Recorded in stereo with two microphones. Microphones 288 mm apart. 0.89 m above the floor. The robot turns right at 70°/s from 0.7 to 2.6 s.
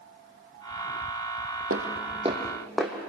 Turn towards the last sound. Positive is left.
turn(degrees=0)  # may be behind; listen again after turning